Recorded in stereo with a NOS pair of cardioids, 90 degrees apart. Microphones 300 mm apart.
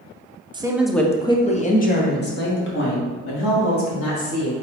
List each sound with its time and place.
0.5 s a woman speaking: 15° right, 0.8 m; by 4.5 s 50° left, 3 m